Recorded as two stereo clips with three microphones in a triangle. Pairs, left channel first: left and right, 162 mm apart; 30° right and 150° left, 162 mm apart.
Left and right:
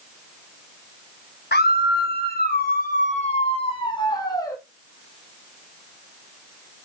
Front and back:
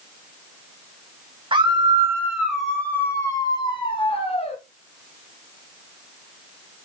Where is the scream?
95° left, 0.9 m; by 4.6 s 20° left, 1.6 m.